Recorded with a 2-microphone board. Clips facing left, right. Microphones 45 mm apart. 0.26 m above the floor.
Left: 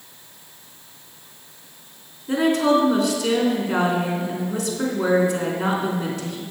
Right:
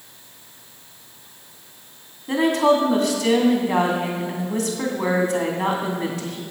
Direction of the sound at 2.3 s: 45° right (ahead or behind).